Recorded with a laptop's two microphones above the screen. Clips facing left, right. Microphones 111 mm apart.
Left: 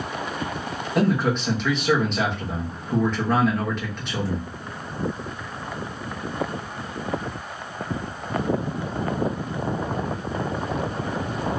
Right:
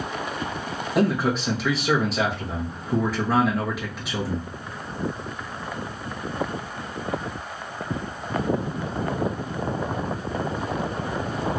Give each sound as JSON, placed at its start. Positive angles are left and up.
{"t": 0.9, "sound": "a man speaking", "side_deg": -5, "distance_m": 0.8}